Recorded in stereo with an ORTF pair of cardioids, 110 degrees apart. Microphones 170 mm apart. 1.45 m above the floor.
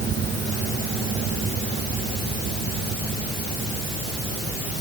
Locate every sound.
Only background noise.